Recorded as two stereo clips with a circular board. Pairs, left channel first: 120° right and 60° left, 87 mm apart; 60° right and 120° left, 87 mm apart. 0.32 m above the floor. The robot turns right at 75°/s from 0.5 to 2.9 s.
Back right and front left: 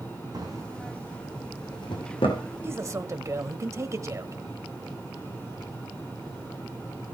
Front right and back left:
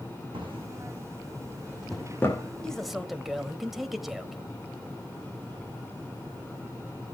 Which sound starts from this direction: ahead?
A man speaking, at 2.6 s.